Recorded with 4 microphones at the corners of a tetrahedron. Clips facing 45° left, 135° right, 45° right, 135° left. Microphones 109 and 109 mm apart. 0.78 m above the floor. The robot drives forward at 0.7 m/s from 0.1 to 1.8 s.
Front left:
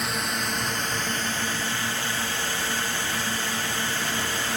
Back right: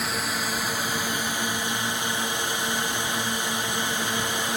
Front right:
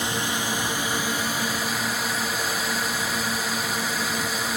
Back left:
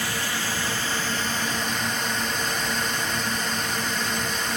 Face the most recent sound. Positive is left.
turn(degrees=-115)